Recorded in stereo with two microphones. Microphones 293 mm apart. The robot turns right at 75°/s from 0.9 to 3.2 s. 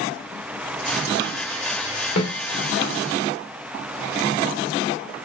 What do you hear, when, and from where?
2.2 s a snare drum: 65° left (ahead or behind), 0.9 m; by 2.3 s 60° left (ahead or behind), 0.9 m